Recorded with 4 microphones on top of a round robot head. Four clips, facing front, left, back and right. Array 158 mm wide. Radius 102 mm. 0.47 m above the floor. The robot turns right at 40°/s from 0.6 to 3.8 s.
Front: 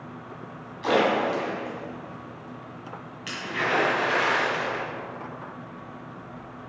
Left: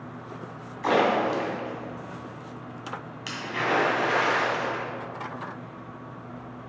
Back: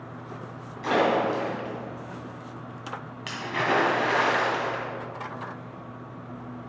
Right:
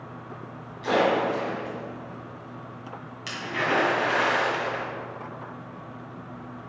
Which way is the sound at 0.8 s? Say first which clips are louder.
Even, front 1 dB; 70° left.